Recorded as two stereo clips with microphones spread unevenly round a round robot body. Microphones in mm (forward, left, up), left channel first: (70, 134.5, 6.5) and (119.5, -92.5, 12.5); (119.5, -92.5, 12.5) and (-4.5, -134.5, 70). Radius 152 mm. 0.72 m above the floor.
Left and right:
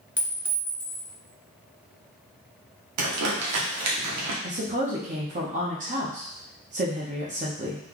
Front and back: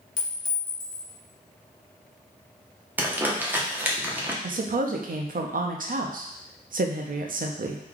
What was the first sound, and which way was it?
A clink, 5° left.